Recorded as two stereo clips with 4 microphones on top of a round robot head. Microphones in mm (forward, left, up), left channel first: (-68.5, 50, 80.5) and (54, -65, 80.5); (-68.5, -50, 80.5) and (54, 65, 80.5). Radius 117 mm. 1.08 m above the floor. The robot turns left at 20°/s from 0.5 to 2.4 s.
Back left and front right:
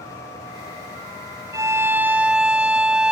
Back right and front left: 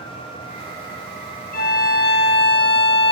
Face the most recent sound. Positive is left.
turn(degrees=-130)